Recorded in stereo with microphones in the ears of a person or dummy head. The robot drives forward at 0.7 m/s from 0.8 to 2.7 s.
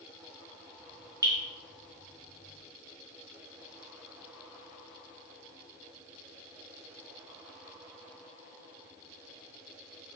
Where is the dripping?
15° right (ahead or behind), 0.6 m.